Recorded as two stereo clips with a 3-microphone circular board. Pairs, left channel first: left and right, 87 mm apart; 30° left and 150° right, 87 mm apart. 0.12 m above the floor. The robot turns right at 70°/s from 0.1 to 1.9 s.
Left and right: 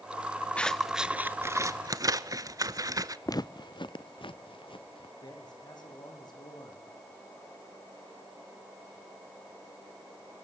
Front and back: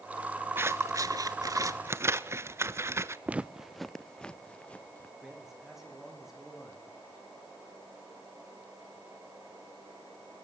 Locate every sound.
0.6 s scissors: 160° left, 0.7 m; by 3.2 s 105° right, 0.7 m
3.3 s footsteps: 140° left, 0.6 m; by 5.1 s 100° left, 1.8 m
5.2 s a man speaking: 125° left, 7 m